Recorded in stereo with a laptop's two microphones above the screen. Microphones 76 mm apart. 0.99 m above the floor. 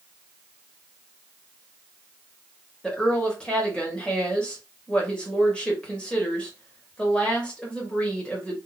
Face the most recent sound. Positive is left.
turn(degrees=15)  # may be behind; listen again after turning